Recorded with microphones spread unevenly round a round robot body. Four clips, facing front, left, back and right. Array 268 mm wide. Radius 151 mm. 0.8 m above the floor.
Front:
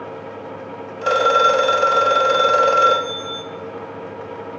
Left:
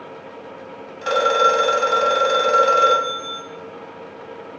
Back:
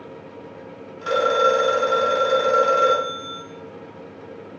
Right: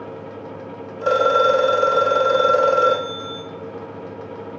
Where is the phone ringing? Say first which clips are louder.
Right 1 dB, front 3 dB; 85° right, 1.6 m.